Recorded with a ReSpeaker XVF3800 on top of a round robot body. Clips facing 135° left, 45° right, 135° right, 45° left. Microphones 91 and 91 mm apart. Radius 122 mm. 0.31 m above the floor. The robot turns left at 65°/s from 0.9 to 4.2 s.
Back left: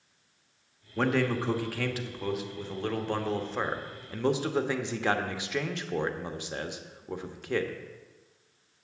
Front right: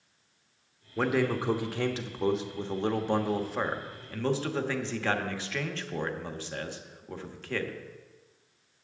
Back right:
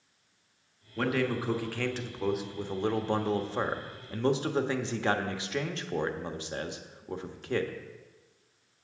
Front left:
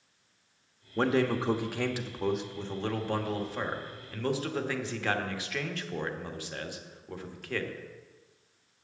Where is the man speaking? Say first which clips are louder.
Even, front left 3 dB; 40° left, 1.2 m; by 7.7 s 170° right, 1.2 m.